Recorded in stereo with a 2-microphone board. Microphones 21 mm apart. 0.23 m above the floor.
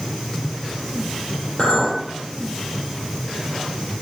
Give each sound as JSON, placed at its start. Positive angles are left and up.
{"t": 1.6, "sound": "a clink", "side_deg": 55, "distance_m": 3.5}